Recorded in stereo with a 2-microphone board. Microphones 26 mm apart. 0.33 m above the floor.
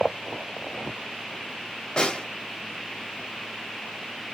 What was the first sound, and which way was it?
A snare drum, 35° left (ahead or behind).